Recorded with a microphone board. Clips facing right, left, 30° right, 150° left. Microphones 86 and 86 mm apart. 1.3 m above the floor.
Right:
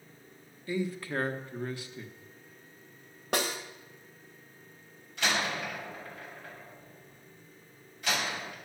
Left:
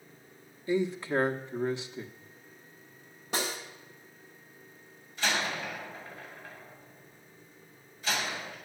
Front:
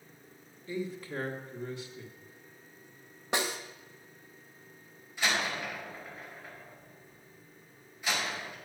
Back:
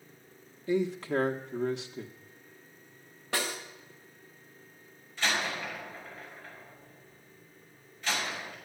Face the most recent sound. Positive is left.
turn(degrees=-110)